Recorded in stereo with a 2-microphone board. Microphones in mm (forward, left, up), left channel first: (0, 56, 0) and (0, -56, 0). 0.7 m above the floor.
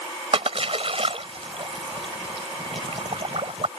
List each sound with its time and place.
0.3 s a splash: 60° right (ahead or behind)